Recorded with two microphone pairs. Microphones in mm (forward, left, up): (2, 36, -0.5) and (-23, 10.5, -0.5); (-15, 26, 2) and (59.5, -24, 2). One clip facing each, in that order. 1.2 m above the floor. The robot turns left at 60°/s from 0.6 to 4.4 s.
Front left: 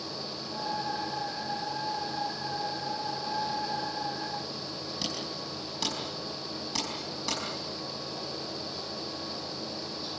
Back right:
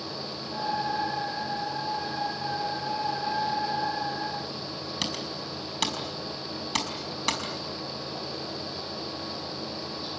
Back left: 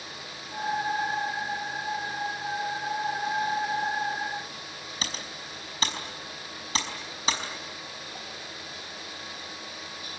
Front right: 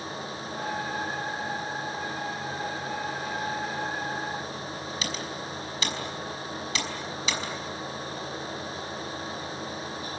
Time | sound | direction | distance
5.0 | typing on a keyboard | 160° right | 5 m